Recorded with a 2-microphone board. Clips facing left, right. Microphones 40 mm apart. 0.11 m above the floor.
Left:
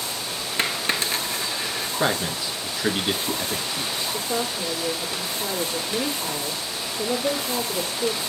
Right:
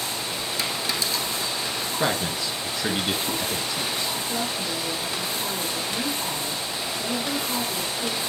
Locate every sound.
0.6 s a dropped coin: 45° left (ahead or behind), 0.9 m
2.0 s a man speaking: 10° left (ahead or behind), 1.2 m
4.1 s a woman speaking: 50° left (ahead or behind), 1.9 m